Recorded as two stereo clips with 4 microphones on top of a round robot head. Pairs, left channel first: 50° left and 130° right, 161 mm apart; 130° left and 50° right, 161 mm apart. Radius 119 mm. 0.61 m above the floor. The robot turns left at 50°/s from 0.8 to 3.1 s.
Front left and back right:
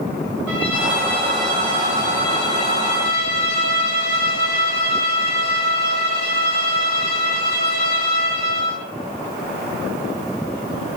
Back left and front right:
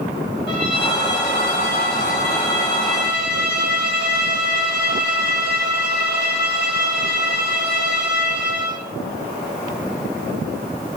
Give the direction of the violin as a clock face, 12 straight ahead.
7 o'clock.